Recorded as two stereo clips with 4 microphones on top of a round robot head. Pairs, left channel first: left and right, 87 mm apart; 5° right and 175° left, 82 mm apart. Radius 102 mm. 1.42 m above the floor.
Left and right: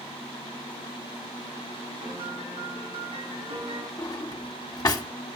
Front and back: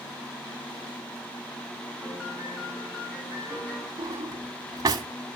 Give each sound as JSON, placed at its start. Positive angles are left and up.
{"t": 2.0, "sound": "a piano", "azimuth_deg": -80, "distance_m": 4.5}
{"t": 4.0, "sound": "a drawer", "azimuth_deg": 135, "distance_m": 1.3}